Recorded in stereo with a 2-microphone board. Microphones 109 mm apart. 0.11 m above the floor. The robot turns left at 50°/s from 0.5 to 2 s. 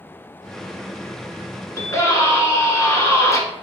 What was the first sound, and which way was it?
A scream, 30° left (ahead or behind).